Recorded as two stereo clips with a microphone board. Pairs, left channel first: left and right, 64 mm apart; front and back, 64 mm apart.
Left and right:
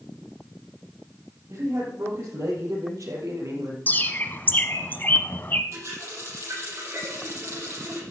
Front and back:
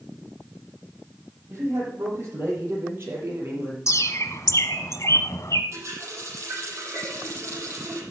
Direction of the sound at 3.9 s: 30° left.